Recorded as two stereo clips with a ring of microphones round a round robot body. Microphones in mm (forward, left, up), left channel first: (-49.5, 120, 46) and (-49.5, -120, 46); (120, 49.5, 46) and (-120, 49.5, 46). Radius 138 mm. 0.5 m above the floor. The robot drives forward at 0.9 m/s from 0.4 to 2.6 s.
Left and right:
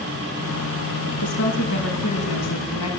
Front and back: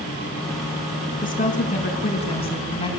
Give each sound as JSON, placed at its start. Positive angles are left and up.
{"t": 1.2, "sound": "a woman speaking", "azimuth_deg": 55, "distance_m": 5.5}